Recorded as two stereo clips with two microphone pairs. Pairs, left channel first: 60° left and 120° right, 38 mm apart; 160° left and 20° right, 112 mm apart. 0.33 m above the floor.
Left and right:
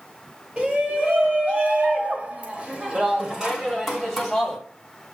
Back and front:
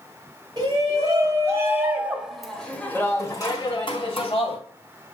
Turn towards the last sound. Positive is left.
turn(degrees=155)